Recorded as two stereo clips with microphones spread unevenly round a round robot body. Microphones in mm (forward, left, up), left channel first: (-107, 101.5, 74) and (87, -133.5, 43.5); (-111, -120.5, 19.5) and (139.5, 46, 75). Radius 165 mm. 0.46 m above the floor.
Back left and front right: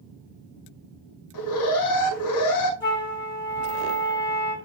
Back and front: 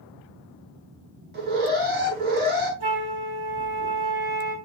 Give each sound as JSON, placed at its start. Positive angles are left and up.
{"t": 1.3, "sound": "an alarm", "azimuth_deg": 95, "distance_m": 5.0}
{"t": 2.8, "sound": "a flute", "azimuth_deg": 50, "distance_m": 4.0}